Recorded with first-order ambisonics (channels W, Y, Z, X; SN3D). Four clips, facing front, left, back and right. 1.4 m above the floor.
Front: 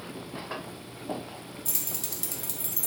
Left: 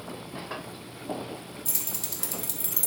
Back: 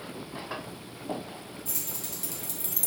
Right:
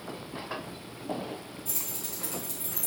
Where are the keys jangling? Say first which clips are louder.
Left 3 dB, front 2 dB; 50° left, 0.9 m; by 2.9 s 130° left, 0.5 m.